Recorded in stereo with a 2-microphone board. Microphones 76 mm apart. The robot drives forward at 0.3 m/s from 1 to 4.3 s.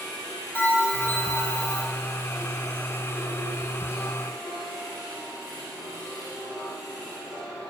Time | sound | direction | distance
0.6 | a bell | 15° left (ahead or behind) | 4.5 m